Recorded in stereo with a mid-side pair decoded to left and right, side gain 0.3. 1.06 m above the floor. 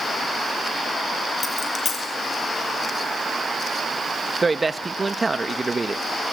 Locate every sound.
1.4 s a dropped coin: 55° left, 6.5 m
4.4 s a man speaking: 35° right, 1.2 m